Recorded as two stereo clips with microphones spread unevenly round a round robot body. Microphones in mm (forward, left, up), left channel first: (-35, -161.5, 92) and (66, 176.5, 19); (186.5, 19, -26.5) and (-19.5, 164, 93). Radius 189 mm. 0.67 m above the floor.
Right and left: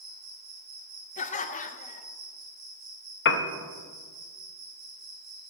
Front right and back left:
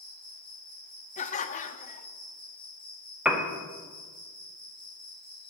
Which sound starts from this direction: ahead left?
An insect, at 0.0 s.